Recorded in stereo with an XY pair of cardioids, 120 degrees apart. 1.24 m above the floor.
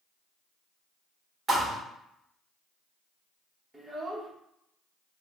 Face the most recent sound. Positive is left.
turn(degrees=-10)